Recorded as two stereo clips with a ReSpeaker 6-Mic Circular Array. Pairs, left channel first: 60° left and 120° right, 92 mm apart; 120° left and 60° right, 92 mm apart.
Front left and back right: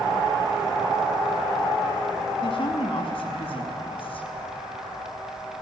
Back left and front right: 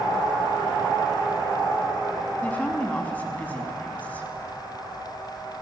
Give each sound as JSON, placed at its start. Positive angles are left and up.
{"t": 2.4, "sound": "a woman speaking", "azimuth_deg": 50, "distance_m": 5.5}